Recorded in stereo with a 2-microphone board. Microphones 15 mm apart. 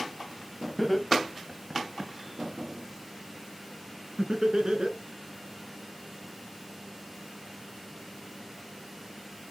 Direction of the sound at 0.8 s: 10° left (ahead or behind).